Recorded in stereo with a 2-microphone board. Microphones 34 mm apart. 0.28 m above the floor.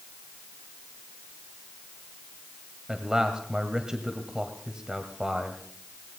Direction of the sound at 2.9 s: 20° right (ahead or behind).